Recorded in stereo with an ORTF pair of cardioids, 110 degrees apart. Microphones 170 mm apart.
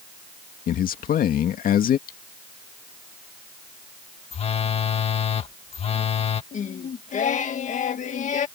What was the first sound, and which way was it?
A man speaking, 55° left.